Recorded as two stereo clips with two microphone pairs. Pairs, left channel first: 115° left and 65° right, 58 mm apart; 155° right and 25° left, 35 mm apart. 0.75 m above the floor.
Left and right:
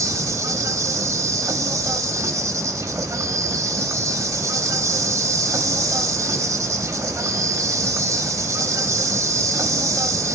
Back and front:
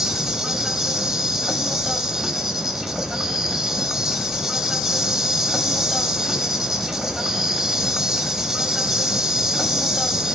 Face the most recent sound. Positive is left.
turn(degrees=-50)